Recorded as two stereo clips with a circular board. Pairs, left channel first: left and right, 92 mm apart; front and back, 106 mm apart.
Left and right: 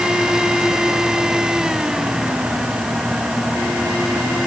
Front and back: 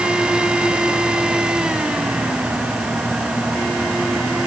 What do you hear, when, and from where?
Only background noise.